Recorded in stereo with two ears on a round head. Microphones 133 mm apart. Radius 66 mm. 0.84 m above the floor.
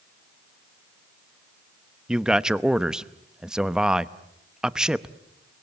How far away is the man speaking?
About 0.7 m.